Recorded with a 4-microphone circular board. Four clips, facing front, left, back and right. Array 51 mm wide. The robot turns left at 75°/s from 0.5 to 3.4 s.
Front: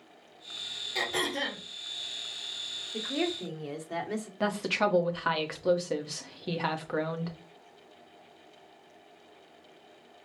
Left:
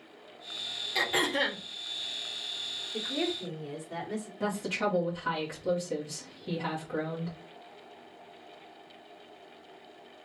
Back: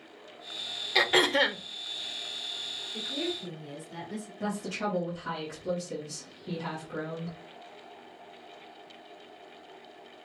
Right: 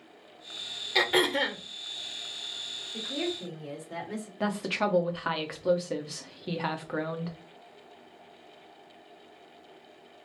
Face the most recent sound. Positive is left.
turn(degrees=-35)